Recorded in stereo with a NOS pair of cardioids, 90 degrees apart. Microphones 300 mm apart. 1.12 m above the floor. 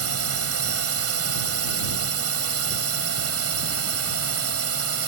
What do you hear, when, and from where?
0.0 s a drone: 55° right